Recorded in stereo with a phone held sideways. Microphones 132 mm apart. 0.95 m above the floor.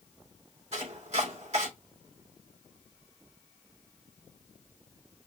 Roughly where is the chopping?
Right.